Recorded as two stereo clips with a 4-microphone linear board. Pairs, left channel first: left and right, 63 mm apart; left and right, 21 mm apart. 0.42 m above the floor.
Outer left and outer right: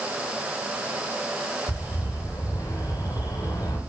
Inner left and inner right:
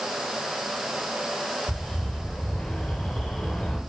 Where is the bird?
75° left (ahead or behind), 8.5 m.